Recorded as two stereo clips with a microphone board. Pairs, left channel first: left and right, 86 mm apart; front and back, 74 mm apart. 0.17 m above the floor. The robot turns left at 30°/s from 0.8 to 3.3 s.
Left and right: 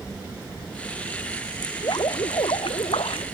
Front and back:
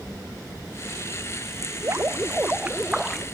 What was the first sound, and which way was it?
Dripping, 135° left.